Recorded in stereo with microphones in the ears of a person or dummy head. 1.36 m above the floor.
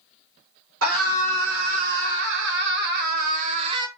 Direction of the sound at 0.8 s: 70° right (ahead or behind).